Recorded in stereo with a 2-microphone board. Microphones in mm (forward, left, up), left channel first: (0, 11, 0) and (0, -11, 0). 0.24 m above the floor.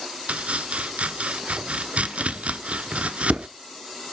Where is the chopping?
80° right, 0.9 m.